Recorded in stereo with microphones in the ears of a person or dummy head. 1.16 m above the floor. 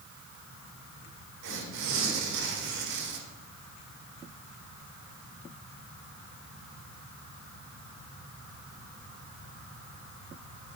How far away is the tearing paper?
About 1.6 m.